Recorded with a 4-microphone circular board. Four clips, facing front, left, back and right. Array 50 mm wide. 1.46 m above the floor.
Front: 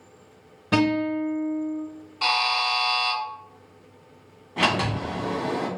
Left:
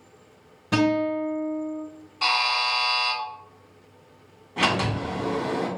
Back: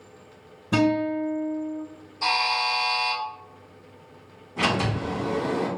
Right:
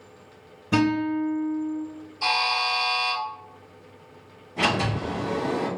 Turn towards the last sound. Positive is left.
turn(degrees=35)